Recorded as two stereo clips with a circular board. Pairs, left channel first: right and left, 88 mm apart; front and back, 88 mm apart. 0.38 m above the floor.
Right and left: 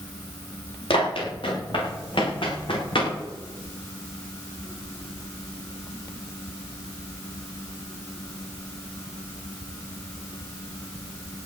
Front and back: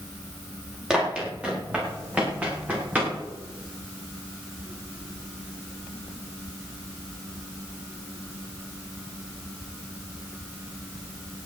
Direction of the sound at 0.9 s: 100° right.